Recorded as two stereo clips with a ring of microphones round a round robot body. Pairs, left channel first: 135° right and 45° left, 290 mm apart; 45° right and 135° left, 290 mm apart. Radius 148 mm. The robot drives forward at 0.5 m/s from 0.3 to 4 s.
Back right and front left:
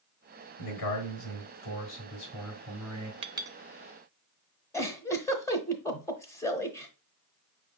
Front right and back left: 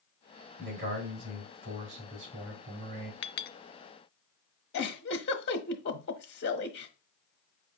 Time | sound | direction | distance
0.6 | a man speaking | 175° right | 3 m
3.2 | a clink | 20° right | 0.6 m
4.7 | a giggle | 60° right | 0.9 m